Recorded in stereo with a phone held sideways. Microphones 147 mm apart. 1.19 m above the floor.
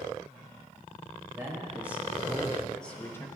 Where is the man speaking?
15° right (ahead or behind), 1.8 m; by 3.3 s 20° left (ahead or behind), 0.9 m.